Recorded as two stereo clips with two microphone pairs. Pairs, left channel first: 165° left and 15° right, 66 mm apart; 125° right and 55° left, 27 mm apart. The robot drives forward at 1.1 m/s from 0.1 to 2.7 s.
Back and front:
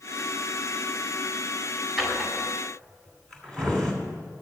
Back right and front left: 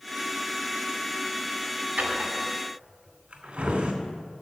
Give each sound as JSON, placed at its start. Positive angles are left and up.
{"t": 2.0, "sound": "a drawer", "azimuth_deg": 70, "distance_m": 2.5}